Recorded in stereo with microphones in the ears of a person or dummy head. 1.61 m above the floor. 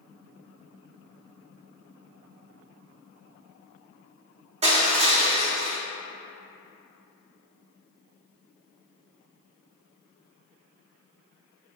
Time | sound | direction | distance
4.6 | crushing | 35° right (ahead or behind) | 0.5 m